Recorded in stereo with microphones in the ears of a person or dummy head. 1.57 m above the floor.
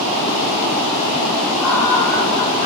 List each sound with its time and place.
1.6 s laughter: 5° left (ahead or behind), 4.5 m; by 2.6 s 20° left (ahead or behind), 4.5 m